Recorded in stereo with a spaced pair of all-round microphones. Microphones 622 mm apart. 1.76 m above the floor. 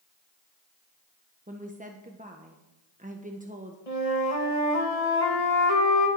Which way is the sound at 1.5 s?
15° right (ahead or behind).